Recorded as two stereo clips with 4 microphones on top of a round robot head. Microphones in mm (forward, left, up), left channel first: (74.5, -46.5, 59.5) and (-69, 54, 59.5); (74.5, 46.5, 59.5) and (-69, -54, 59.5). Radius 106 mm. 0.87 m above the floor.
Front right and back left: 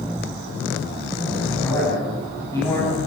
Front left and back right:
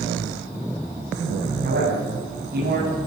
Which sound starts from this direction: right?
A man speaking, at 1.6 s.